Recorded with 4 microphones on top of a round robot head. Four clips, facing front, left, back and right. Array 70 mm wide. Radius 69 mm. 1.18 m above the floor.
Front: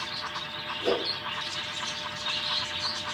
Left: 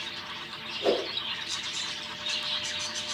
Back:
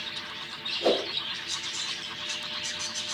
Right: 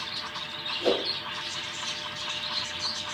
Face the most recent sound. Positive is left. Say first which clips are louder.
# even, back 3 dB
turn(degrees=180)